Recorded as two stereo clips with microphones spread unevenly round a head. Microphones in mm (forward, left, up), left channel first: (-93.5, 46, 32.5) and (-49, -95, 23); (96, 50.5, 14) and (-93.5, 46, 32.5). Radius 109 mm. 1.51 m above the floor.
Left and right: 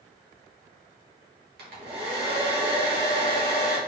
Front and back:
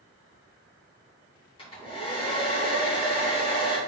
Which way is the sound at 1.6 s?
70° right.